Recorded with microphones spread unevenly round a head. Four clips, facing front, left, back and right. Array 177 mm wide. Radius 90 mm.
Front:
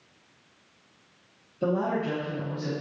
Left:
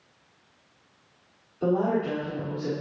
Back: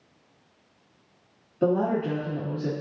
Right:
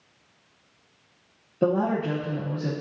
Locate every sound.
1.6 s a woman speaking: 120° right, 1.8 m